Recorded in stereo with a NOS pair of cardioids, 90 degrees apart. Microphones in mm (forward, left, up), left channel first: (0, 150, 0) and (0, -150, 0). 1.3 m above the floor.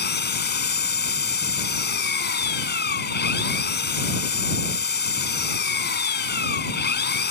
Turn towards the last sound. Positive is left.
turn(degrees=35)